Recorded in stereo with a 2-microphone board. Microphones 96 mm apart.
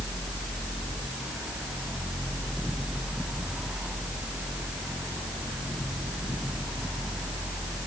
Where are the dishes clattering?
No dishes clattering in this recording.